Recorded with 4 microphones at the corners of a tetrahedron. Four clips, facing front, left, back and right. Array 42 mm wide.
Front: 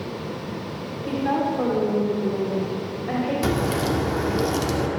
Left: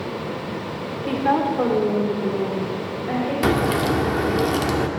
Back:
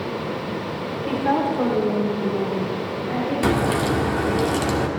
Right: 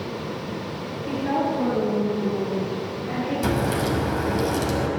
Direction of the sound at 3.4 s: 115° left.